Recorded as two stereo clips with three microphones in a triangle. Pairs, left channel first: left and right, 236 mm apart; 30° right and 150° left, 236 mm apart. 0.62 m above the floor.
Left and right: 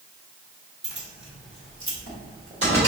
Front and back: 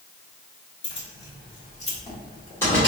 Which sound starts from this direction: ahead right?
Keys jangling, at 0.8 s.